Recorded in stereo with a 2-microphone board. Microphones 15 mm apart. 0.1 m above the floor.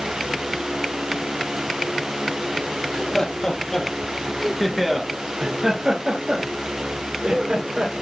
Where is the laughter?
55° left (ahead or behind), 3.5 m; by 7.9 s 75° right (ahead or behind), 5 m.